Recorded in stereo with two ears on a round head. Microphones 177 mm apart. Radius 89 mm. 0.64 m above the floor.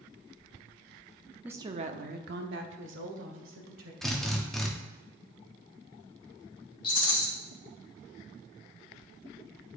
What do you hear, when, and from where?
1.4 s a woman speaking: 5° right (ahead or behind), 0.6 m; by 3.9 s 75° right (ahead or behind), 2.5 m
4.0 s a drill: centre (ahead or behind), 1.1 m
6.8 s a rattle: 25° left (ahead or behind), 2 m